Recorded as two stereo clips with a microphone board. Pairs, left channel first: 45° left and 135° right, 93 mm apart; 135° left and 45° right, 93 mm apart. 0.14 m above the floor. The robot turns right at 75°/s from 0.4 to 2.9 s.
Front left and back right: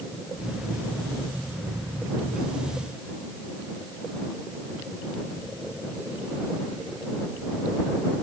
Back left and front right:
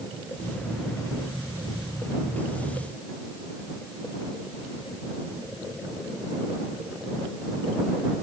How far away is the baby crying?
No baby crying in this recording.